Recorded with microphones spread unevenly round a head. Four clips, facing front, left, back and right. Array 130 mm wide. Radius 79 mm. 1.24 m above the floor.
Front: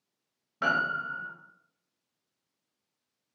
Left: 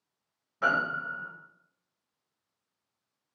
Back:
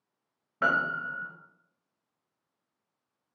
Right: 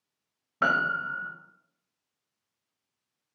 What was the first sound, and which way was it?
A piano, 105° right.